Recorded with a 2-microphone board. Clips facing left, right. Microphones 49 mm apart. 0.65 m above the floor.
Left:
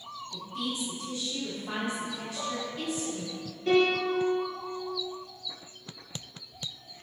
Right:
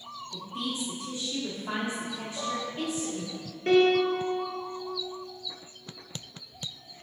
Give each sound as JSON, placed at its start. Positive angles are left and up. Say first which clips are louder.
{"t": 0.3, "sound": "a woman speaking", "louder": "even", "side_deg": -30, "distance_m": 1.4}
{"t": 2.4, "sound": "dishes clattering", "louder": "right 2 dB", "side_deg": -20, "distance_m": 2.5}
{"t": 3.7, "sound": "a piano", "louder": "right 3 dB", "side_deg": -50, "distance_m": 2.5}